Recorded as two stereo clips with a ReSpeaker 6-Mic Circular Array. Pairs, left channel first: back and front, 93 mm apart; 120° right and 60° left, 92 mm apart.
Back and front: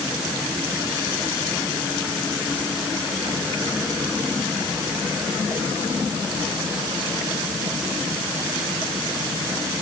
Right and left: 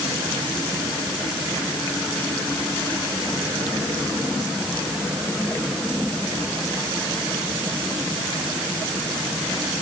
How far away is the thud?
I don't hear a thud.